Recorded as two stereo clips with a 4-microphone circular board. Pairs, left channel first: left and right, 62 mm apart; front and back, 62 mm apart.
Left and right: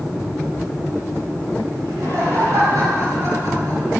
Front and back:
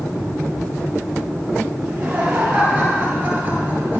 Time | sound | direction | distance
1.8 | laughter | 110° right | 9 m